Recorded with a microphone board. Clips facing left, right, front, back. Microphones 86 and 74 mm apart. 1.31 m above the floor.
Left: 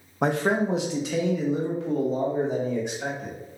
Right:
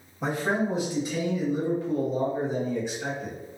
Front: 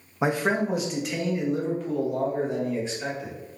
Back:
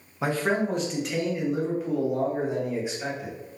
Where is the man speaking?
70° left, 0.6 m; by 3.3 s 105° left, 2 m.